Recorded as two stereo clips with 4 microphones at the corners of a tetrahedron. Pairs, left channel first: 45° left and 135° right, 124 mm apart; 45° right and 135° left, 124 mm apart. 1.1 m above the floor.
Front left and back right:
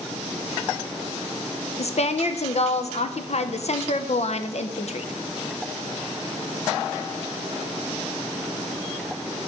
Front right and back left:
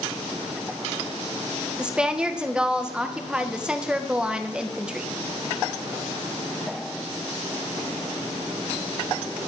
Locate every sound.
1.8 s a woman speaking: 55° left, 0.6 m